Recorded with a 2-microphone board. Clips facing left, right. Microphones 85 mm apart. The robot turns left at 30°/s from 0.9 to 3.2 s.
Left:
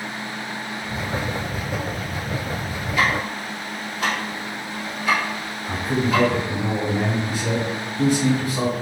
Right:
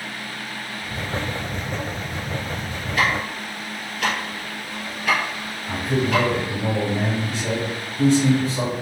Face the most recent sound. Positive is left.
turn(degrees=5)  # may be behind; listen again after turning